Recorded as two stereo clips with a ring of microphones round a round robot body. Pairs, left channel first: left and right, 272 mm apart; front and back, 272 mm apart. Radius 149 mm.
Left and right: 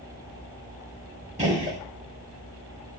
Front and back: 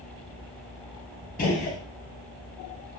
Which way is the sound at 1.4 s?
40° right.